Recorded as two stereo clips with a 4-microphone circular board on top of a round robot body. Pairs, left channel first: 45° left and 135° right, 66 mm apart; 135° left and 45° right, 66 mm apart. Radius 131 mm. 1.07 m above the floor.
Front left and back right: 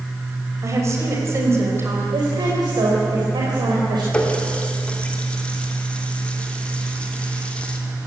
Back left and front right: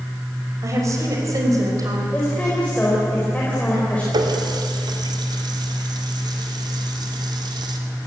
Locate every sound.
0.6 s a woman speaking: 90° right, 5.5 m; by 2.0 s 80° right, 5 m
2.1 s a woman speaking: 150° right, 4.5 m
4.1 s a running tap: 30° right, 2 m